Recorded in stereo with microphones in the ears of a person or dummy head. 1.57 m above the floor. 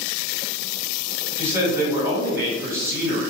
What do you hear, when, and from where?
1.4 s a man speaking: 20° right (ahead or behind), 1.8 m